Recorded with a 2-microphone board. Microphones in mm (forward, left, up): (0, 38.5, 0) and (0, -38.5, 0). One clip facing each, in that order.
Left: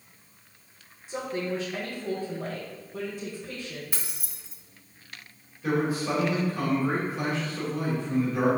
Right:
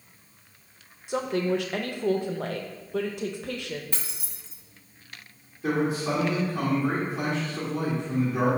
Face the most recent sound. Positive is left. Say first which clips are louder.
# right 1 dB
turn(degrees=-25)  # may be behind; listen again after turning